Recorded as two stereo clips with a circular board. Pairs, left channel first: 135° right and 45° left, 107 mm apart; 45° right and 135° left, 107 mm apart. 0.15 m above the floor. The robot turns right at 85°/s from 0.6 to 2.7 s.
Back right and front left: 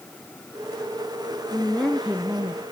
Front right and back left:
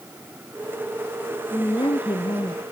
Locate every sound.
1.5 s a woman speaking: 80° right, 1.7 m; by 2.6 s 15° left, 1.7 m